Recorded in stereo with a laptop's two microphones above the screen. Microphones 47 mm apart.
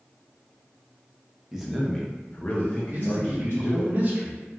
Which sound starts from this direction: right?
A man speaking, at 2.9 s.